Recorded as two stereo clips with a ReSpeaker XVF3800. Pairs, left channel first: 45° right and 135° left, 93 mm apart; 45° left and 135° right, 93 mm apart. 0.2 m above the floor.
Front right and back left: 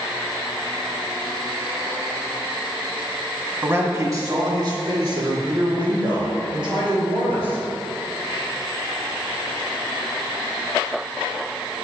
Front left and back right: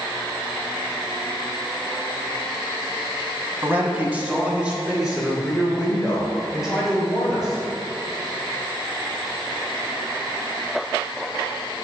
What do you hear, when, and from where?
3.6 s a man speaking: straight behind, 1.1 m; by 7.6 s 135° left, 4 m